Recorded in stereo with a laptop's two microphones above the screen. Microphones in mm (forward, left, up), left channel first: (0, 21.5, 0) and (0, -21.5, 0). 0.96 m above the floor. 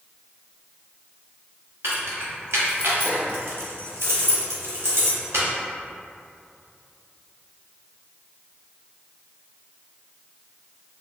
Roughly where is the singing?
I don't hear singing.